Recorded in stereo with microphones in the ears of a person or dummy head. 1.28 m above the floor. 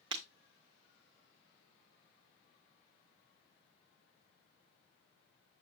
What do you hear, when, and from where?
0.1 s breaking glass: 35° right (ahead or behind), 1.3 m